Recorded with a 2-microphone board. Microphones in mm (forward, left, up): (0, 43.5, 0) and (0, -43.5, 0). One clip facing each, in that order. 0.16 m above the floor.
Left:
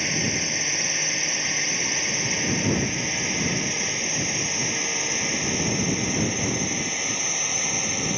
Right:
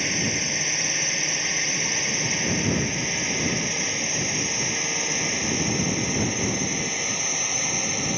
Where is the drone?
Centre (ahead or behind).